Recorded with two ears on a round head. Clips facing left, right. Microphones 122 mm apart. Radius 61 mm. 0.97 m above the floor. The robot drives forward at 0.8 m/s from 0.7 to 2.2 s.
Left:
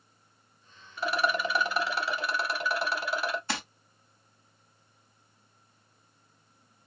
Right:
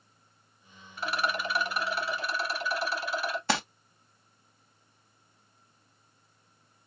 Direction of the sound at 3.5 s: 55° right (ahead or behind).